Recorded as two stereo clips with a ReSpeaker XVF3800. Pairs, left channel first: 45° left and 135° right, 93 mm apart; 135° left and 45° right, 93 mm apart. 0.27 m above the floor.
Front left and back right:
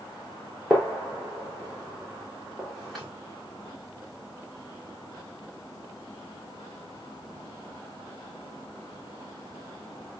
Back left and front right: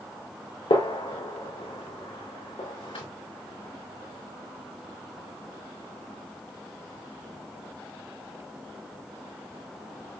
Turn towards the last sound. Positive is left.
turn(degrees=135)